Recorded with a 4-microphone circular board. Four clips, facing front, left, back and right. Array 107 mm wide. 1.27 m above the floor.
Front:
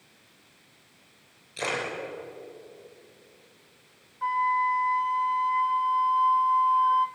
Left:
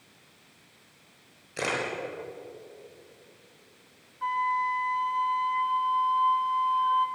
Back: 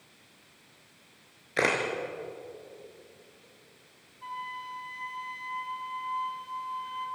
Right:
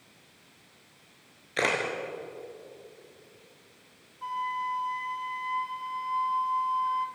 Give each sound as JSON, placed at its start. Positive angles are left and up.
{"t": 1.6, "sound": "a camera shutter", "azimuth_deg": -160, "distance_m": 5.0}
{"t": 4.2, "sound": "a flute", "azimuth_deg": 20, "distance_m": 1.2}